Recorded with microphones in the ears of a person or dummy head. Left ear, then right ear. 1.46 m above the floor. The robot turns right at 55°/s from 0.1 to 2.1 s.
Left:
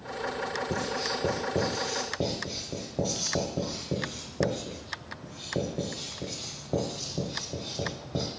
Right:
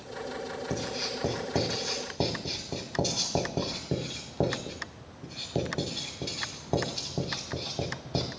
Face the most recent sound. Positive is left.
turn(degrees=-20)  # may be behind; listen again after turning